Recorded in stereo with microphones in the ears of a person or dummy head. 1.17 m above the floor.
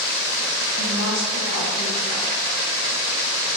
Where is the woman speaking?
55° left (ahead or behind), 1.4 m.